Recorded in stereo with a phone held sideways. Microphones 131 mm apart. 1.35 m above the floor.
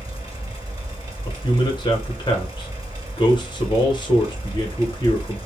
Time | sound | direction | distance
0.0 | a fan | 25° right (ahead or behind) | 2.5 m
1.2 | a man speaking | 35° left (ahead or behind) | 1.0 m